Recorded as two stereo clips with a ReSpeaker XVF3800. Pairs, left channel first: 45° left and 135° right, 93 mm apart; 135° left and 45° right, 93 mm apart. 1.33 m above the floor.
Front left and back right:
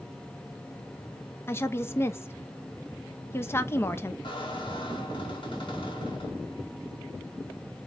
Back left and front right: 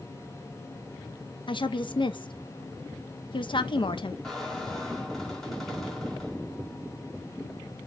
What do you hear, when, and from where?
1.5 s a woman speaking: 110° left, 0.5 m
4.2 s a squeak: 50° left, 1.4 m